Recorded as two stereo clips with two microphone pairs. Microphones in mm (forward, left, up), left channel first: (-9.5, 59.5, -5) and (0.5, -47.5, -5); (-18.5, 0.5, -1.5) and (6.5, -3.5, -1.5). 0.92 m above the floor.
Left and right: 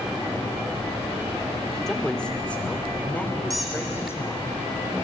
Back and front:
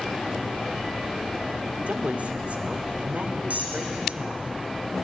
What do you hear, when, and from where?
1.9 s a woman speaking: 10° left, 2.5 m; by 4.5 s 30° left, 4 m
3.5 s a squeak: 5° left, 4 m